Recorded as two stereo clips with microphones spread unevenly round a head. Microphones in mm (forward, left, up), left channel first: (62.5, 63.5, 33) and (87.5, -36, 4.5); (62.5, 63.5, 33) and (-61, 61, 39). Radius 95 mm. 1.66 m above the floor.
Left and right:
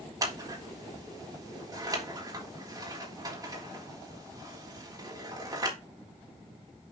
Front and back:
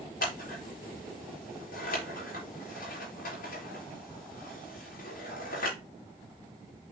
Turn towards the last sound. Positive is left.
turn(degrees=-20)